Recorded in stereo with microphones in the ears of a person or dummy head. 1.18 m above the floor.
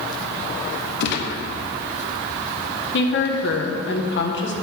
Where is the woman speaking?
55° left (ahead or behind), 0.9 m.